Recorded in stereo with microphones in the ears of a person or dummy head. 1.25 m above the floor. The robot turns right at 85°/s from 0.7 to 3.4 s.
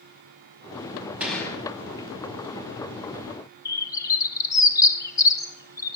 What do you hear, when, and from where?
1.2 s a gunshot: 10° right, 5 m; by 1.6 s 30° left, 5 m
3.6 s a bird: 20° left (ahead or behind), 1.9 m